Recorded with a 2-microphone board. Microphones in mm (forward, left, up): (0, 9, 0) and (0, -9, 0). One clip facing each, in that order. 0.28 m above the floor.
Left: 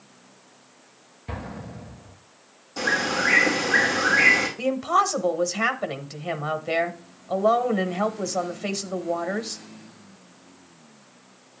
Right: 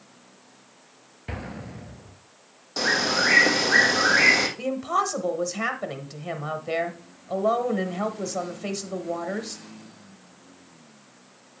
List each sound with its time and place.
1.3 s an explosion: 30° right (ahead or behind), 1.4 m
2.8 s a bird: 45° right (ahead or behind), 2.5 m
4.6 s a woman speaking: 15° left (ahead or behind), 0.9 m